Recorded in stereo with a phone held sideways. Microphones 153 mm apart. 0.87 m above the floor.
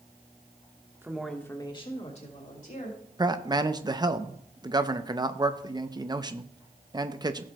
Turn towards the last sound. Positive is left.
turn(degrees=-25)  # may be behind; listen again after turning